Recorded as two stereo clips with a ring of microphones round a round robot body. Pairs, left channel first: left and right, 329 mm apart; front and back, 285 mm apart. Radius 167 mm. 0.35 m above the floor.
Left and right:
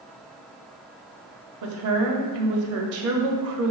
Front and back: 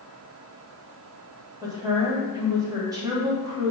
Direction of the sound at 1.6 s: 105° right.